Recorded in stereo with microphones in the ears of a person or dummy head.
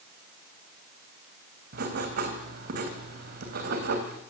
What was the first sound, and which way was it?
Writing, 60° right (ahead or behind).